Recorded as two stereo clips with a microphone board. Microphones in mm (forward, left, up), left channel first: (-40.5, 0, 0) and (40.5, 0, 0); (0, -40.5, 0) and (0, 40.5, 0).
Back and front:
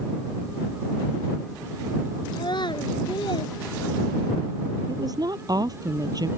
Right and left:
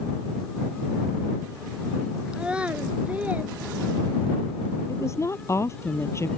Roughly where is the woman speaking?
Ahead right.